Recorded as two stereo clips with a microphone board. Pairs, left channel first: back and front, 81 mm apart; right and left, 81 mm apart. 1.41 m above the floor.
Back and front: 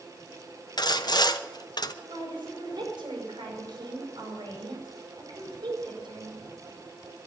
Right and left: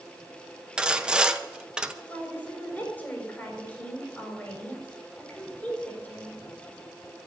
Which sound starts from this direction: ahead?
A woman speaking, at 2.1 s.